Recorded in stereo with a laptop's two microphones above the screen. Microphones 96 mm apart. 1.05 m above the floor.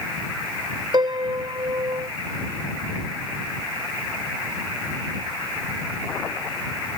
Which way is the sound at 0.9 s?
50° right (ahead or behind).